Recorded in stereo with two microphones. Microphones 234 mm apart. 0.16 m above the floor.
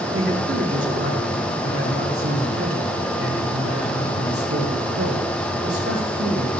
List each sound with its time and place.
0.1 s a man speaking: 55° right (ahead or behind), 3 m; by 6.5 s 75° right (ahead or behind), 7 m